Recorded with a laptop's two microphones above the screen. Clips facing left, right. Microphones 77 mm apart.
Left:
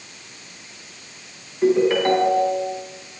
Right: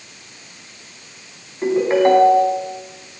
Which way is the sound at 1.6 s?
25° right (ahead or behind).